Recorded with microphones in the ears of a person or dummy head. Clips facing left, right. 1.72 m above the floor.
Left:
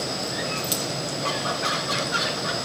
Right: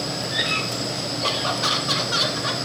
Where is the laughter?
50° right (ahead or behind), 3 m; by 2.6 s 60° right (ahead or behind), 4.5 m.